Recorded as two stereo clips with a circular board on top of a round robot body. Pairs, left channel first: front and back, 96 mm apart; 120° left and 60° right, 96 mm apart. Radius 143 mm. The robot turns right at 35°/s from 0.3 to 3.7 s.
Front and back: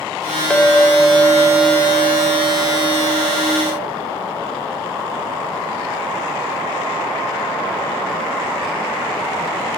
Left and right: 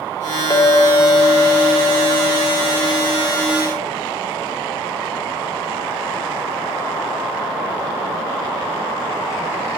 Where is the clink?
75° left, 0.7 m; by 3.9 s 170° right, 0.7 m.